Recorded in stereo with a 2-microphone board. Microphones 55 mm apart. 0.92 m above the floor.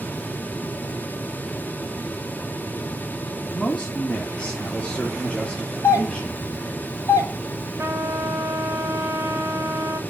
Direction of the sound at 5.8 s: 60° left (ahead or behind).